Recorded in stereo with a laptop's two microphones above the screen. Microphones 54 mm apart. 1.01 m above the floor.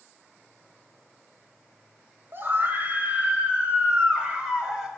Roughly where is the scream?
Right.